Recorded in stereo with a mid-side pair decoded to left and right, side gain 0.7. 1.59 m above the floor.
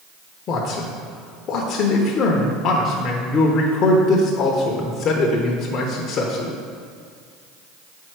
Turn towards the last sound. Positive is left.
turn(degrees=45)